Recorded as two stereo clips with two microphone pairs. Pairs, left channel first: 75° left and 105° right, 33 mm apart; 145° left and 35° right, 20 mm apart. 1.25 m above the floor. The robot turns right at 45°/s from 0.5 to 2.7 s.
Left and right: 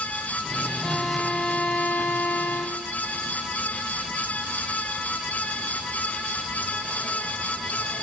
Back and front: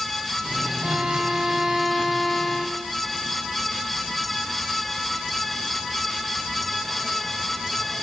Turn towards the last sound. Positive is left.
turn(degrees=90)